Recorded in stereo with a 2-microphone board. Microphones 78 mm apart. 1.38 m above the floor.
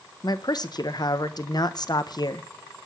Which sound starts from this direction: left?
A man speaking, at 0.2 s.